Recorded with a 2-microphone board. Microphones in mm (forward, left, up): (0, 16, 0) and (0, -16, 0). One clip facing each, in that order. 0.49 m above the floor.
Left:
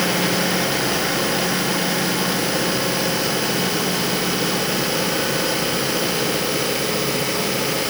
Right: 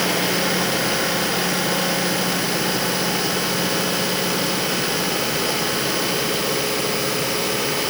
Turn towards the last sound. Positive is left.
No sound to turn to.